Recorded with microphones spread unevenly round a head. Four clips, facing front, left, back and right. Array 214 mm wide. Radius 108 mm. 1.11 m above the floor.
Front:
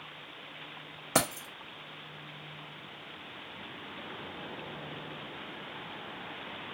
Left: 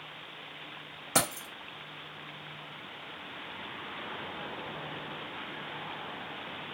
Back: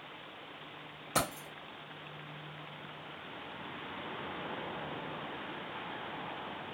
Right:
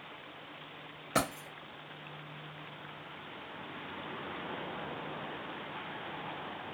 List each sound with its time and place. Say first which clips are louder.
1.1 s keys jangling: left 1 dB, front 4 dB; 5° right, 0.6 m